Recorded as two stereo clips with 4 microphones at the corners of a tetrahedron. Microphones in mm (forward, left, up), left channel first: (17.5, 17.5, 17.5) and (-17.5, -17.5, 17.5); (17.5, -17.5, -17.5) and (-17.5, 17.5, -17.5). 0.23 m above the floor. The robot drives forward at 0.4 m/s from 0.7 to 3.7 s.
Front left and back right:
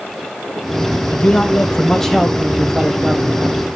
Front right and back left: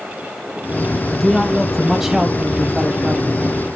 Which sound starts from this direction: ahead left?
A man speaking, at 1.1 s.